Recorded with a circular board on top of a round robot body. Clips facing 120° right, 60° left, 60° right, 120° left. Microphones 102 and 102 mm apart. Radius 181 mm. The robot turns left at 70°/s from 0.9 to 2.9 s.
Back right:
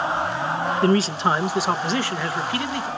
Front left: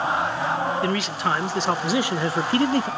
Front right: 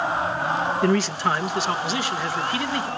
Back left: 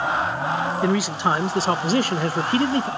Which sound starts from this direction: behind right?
A man speaking, at 0.8 s.